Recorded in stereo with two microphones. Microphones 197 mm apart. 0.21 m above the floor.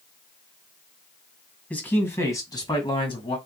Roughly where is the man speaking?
Centre.